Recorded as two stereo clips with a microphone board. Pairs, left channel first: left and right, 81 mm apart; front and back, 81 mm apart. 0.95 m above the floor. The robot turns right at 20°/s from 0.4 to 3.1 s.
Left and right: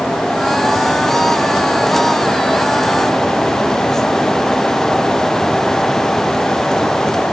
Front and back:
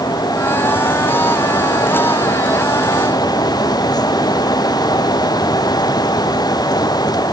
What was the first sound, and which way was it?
Only background noise.